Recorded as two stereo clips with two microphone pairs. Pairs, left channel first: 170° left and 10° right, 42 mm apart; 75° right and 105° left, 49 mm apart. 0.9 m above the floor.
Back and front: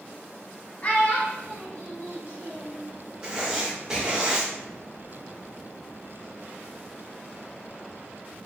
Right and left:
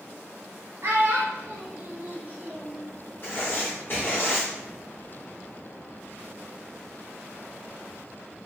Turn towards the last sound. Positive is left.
turn(degrees=-80)